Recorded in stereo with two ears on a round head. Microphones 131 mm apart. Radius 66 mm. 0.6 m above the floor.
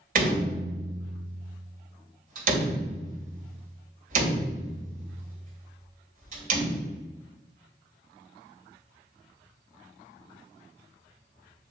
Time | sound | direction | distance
0.1 | a door slam | 65° right (ahead or behind) | 2.5 m